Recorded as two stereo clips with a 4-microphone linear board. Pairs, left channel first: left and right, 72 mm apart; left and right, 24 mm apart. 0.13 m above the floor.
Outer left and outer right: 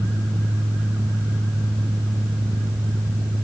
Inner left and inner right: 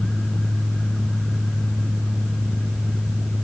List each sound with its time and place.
Only background noise.